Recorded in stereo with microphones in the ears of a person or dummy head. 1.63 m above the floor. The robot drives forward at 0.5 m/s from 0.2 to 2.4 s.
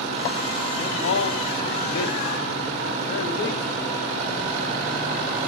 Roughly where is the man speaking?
Left.